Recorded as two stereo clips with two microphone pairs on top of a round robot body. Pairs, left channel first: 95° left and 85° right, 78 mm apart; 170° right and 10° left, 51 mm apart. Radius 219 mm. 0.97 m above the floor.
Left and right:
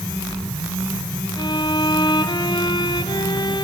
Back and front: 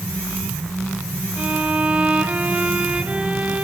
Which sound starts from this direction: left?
A violin, at 1.4 s.